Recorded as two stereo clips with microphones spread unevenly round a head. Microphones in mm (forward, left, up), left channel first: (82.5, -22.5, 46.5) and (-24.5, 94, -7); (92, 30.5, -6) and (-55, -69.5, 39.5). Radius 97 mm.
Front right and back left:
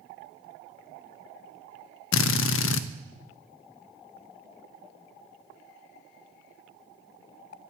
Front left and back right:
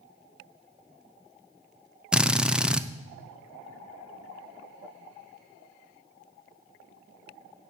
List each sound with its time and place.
2.1 s a drill: 60° right, 0.6 m